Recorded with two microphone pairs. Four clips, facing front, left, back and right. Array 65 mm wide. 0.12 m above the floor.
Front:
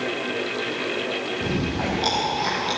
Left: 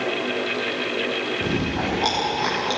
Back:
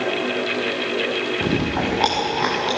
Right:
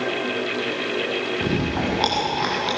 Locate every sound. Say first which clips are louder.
1.4 s chewing: right 1 dB, back 4 dB; 165° right, 8 m